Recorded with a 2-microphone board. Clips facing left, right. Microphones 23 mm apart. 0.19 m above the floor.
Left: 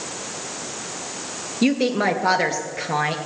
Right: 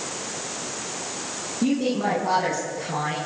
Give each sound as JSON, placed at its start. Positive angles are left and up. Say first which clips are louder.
{"t": 1.6, "sound": "a woman speaking", "louder": "left 4 dB", "side_deg": 65, "distance_m": 3.0}